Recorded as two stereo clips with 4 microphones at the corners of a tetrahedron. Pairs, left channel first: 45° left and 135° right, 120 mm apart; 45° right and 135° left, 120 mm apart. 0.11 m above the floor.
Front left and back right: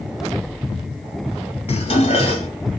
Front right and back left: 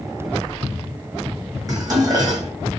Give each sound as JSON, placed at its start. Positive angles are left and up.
{"t": 1.7, "sound": "dishes clattering", "azimuth_deg": 80, "distance_m": 1.9}